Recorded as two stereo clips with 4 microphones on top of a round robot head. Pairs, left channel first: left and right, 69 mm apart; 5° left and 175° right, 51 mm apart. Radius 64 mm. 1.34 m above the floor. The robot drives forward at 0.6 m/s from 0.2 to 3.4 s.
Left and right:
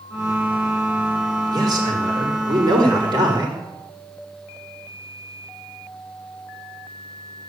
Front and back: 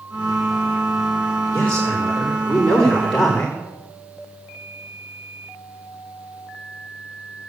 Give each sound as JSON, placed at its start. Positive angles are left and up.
{"t": 1.5, "sound": "a man speaking", "azimuth_deg": -70, "distance_m": 5.0}